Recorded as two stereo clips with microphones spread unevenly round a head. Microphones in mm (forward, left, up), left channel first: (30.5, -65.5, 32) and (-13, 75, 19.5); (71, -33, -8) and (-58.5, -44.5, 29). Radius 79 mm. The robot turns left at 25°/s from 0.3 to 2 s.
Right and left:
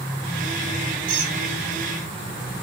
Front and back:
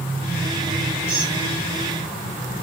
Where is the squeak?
110° left, 3.5 m; by 1.4 s 100° left, 3.5 m.